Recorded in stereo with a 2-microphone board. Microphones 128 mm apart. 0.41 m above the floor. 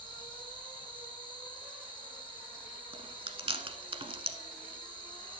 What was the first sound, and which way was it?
An insect, 10° left (ahead or behind).